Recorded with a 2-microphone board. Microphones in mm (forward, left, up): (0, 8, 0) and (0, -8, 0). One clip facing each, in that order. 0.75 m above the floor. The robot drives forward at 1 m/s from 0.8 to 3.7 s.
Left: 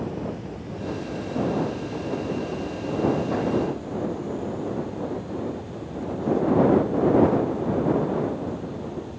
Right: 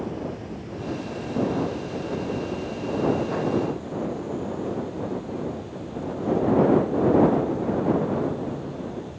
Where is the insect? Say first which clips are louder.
Left 1 dB; centre (ahead or behind).